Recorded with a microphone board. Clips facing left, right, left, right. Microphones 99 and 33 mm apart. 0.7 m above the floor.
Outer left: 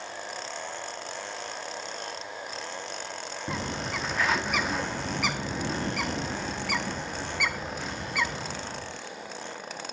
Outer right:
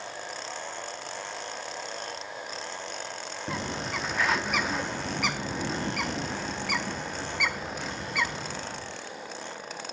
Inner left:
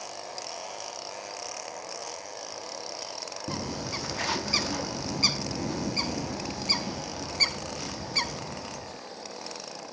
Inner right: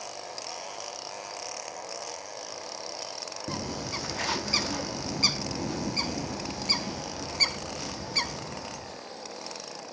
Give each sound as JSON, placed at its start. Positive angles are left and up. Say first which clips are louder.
{"t": 3.5, "sound": "a bird", "louder": "even, even", "side_deg": 0, "distance_m": 0.7}